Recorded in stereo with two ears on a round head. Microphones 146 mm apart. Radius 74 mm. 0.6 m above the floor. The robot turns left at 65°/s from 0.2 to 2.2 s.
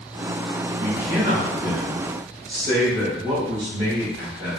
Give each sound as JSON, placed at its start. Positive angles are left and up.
{"t": 0.8, "sound": "a man speaking", "azimuth_deg": -20, "distance_m": 2.0}